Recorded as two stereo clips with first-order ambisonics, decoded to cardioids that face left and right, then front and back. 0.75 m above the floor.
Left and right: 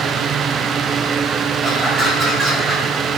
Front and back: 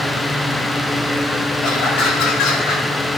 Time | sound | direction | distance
1.6 | laughter | 15° right | 4.5 m